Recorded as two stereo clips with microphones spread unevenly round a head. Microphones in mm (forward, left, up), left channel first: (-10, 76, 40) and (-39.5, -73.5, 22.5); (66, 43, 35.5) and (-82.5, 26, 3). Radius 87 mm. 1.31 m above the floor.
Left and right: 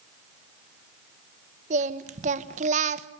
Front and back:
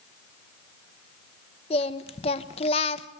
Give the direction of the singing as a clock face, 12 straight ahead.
2 o'clock.